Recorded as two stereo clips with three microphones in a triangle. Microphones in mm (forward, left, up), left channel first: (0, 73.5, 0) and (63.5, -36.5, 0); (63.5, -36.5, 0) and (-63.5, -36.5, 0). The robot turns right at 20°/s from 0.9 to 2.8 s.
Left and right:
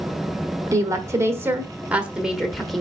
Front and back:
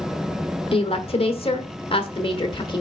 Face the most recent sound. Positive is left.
turn(degrees=35)